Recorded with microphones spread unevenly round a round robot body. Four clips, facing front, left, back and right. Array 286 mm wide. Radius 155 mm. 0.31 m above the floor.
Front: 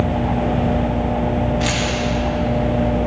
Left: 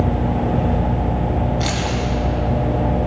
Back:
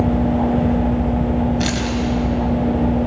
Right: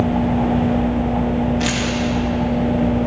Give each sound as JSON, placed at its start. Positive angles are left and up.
{"t": 1.6, "sound": "keys jangling", "azimuth_deg": -175, "distance_m": 1.7}